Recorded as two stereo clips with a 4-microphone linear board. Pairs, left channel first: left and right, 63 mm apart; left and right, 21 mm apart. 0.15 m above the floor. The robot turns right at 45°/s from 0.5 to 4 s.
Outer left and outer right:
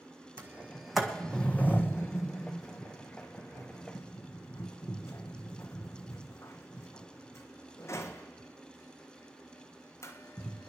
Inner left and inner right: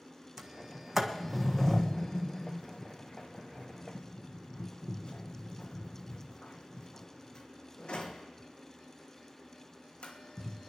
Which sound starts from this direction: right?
A sliding door, at 0.4 s.